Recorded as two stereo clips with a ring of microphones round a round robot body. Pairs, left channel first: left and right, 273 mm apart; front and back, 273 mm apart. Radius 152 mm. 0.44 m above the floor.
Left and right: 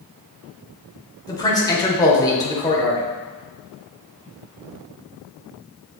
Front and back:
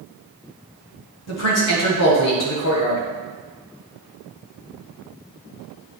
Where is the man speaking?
15° left, 1.3 m.